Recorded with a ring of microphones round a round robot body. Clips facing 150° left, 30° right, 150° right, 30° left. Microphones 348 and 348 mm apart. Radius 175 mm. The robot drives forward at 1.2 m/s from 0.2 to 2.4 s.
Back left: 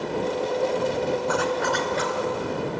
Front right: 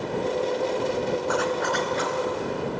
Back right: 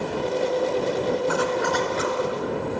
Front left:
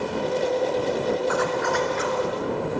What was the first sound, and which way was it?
A zipper, 160° left.